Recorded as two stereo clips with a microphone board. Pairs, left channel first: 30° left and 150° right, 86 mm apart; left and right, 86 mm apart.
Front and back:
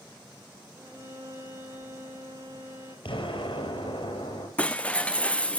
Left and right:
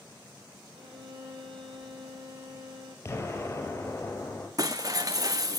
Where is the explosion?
30° left, 5 m.